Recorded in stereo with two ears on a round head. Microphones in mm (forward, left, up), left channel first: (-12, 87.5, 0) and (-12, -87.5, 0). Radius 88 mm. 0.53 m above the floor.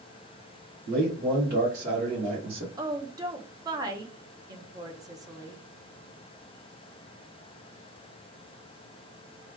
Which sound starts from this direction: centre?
A woman speaking, at 2.8 s.